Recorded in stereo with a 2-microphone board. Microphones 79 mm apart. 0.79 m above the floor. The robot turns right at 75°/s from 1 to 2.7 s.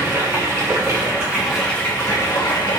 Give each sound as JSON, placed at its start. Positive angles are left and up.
{"t": 0.0, "sound": "running water", "azimuth_deg": -40, "distance_m": 1.3}